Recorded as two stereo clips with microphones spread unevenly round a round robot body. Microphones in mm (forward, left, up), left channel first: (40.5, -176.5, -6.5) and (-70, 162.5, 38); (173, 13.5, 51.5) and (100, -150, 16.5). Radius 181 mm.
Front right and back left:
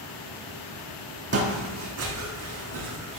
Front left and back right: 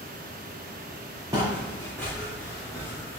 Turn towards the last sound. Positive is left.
turn(degrees=140)